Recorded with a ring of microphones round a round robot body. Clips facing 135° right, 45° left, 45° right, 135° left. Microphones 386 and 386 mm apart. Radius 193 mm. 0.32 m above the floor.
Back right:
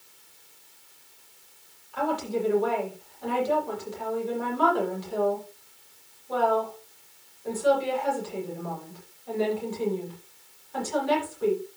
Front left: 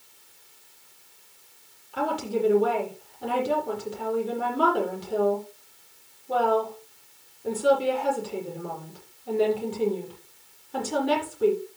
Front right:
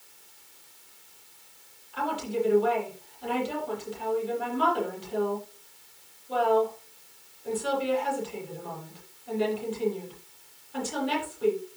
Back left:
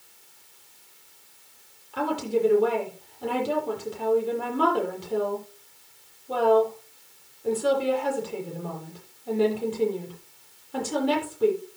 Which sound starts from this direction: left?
A woman speaking, at 1.9 s.